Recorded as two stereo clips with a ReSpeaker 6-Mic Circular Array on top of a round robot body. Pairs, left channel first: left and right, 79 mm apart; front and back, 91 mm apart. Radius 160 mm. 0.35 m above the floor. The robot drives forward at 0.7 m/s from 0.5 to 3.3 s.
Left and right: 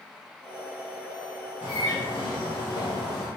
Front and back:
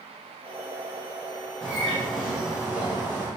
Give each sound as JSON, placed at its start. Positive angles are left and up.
{"t": 1.6, "sound": "a bird", "azimuth_deg": 80, "distance_m": 2.0}